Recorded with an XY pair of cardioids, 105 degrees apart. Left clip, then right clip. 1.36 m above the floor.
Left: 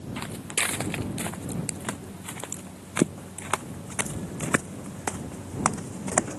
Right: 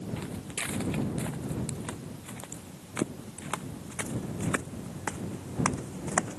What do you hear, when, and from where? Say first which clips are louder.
0.2 s footsteps: left 10 dB; 55° left; by 6.4 s 40° left